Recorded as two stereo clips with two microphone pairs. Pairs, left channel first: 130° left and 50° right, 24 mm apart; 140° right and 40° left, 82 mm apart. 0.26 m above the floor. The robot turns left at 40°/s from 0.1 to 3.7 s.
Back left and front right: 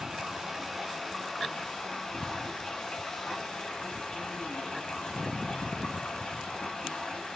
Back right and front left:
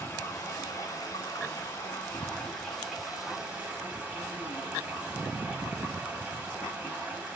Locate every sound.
0.0 s running water: 110° right, 1.3 m; by 7.4 s 105° left, 1.3 m